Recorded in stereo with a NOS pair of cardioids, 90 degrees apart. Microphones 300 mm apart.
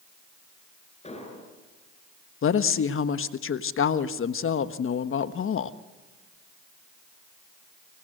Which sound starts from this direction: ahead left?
A woman speaking, at 2.4 s.